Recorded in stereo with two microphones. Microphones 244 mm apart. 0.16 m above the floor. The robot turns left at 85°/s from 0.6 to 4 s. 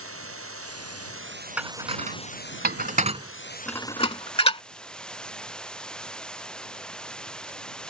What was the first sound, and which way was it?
Running water, 70° right.